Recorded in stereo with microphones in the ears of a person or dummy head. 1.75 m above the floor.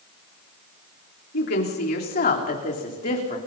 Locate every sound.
1.3 s a woman speaking: 50° left (ahead or behind), 3.5 m; by 3.4 s 30° left (ahead or behind), 3.5 m